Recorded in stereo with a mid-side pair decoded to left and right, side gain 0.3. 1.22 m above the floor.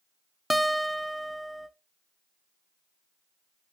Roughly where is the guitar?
Ahead.